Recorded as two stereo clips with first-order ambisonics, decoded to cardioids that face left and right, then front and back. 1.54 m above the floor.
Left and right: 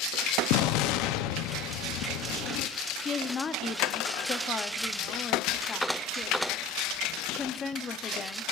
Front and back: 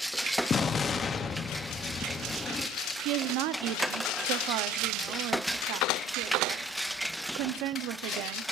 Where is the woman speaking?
160° left, 0.6 m.